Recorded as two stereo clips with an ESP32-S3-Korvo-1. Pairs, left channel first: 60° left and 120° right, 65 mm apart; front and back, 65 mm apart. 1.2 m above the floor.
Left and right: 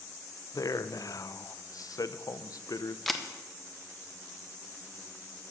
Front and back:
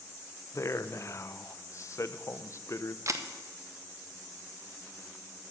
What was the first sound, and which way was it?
A man speaking, 35° left.